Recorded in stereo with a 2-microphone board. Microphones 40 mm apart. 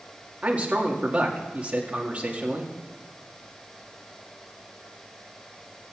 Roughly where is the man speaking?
Right.